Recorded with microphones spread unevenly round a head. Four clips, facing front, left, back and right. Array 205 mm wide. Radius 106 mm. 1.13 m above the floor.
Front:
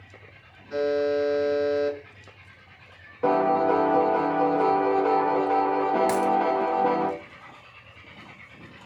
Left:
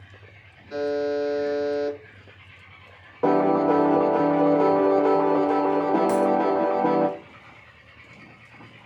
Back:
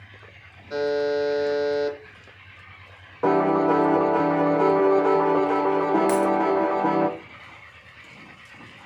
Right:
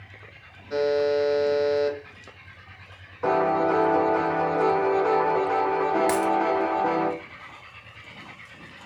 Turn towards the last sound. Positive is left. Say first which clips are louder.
# left 2 dB, back 2 dB
turn(degrees=-90)